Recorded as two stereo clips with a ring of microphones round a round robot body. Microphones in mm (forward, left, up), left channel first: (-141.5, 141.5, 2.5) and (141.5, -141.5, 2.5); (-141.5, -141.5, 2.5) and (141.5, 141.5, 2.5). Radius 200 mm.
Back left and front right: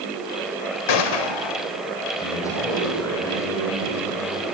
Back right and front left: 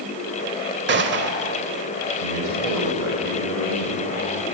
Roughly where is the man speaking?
Ahead left.